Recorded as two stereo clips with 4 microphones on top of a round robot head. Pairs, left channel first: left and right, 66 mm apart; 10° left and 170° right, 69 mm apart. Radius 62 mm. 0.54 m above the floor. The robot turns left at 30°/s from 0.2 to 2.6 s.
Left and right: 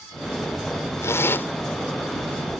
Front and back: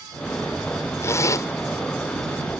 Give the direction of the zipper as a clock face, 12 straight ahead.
10 o'clock.